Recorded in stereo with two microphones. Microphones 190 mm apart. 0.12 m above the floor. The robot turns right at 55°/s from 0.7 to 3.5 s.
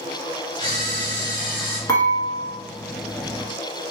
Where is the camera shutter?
90° right, 1.6 m; by 1.8 s 30° right, 1.6 m.